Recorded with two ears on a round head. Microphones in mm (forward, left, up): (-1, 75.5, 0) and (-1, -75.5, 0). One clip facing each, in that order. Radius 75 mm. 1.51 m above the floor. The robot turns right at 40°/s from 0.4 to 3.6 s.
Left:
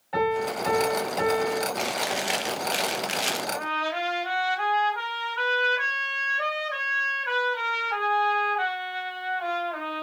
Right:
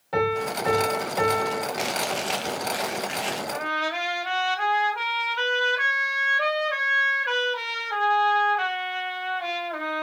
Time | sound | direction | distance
0.1 | a piano | 120° right | 3.5 m
1.8 | chewing | 5° right | 0.7 m
3.5 | a trumpet | 30° right (ahead or behind) | 2.5 m